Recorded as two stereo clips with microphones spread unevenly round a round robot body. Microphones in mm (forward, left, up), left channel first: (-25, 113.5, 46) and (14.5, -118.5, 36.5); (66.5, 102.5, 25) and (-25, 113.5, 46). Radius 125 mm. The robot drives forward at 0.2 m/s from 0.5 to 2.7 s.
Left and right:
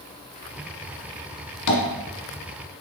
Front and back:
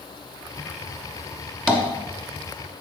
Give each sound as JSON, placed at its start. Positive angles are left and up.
{"t": 1.7, "sound": "tapping", "azimuth_deg": 85, "distance_m": 1.2}